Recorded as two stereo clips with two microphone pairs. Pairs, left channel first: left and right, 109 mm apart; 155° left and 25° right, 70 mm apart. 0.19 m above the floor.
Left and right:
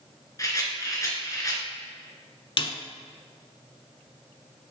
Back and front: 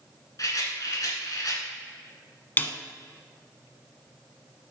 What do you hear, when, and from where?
0.4 s a rattle: 140° left, 2.5 m
2.6 s a snare drum: 100° left, 0.8 m